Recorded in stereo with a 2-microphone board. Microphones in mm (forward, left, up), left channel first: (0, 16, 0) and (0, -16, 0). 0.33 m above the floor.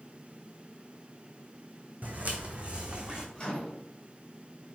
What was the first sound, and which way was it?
Footsteps, 55° right (ahead or behind).